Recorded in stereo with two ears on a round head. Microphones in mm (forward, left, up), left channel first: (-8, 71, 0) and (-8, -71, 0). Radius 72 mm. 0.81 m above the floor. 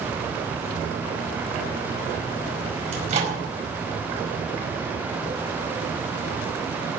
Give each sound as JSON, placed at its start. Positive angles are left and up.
{"t": 2.9, "sound": "a microwave", "side_deg": -45, "distance_m": 5.0}